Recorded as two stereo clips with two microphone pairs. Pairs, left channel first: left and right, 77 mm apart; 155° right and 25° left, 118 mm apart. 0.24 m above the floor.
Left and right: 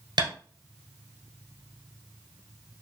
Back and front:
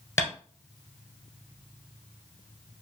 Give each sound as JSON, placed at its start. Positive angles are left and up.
{"t": 0.2, "sound": "tapping", "azimuth_deg": -85, "distance_m": 1.5}